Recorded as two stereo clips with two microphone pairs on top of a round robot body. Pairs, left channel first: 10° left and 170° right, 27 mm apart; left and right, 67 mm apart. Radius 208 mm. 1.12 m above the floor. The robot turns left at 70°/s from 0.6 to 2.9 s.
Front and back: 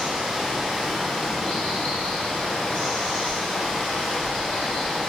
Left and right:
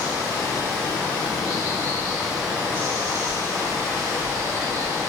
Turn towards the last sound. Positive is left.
turn(degrees=-40)